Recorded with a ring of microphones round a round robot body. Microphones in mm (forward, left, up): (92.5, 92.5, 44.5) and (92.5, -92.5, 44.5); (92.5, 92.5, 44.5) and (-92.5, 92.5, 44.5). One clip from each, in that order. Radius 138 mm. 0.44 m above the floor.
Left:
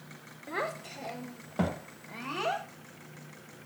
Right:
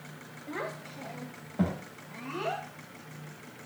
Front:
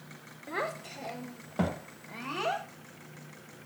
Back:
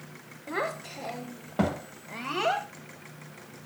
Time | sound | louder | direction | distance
0.5 | a child speaking | left 3 dB, back 3 dB | 85° left | 2 m